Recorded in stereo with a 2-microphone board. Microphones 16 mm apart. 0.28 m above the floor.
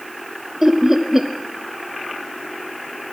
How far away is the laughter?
About 0.9 m.